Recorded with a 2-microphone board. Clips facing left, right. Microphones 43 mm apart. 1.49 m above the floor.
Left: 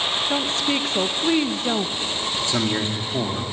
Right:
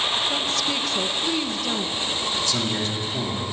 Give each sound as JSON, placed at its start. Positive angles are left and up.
{"t": 0.3, "sound": "a woman speaking", "side_deg": 30, "distance_m": 1.1}
{"t": 2.5, "sound": "a man speaking", "side_deg": 30, "distance_m": 3.0}